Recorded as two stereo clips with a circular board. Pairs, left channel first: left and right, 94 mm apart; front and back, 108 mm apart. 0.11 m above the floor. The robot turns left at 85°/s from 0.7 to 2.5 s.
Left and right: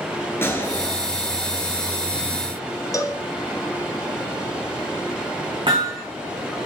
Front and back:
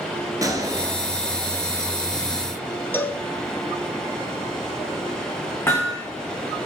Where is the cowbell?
60° left, 0.6 m.